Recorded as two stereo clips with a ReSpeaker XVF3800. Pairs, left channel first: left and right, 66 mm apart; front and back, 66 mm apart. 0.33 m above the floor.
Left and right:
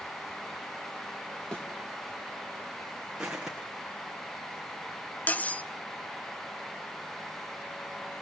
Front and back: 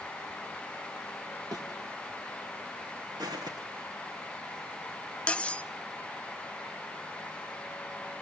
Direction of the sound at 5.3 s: 50° left.